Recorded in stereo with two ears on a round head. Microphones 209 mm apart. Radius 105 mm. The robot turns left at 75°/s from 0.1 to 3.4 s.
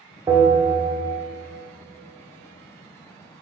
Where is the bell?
25° right, 0.7 m; by 1.1 s 80° right, 0.7 m.